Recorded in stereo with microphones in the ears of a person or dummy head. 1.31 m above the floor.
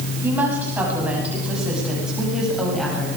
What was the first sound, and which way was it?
A woman speaking, 20° right (ahead or behind).